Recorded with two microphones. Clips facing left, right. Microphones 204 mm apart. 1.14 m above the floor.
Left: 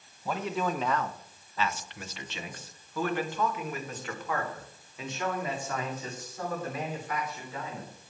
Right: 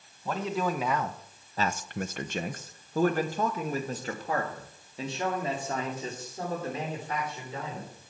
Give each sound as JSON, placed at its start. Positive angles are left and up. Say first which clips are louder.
{"t": 0.2, "sound": "a man speaking", "louder": "right 1 dB", "side_deg": 0, "distance_m": 1.1}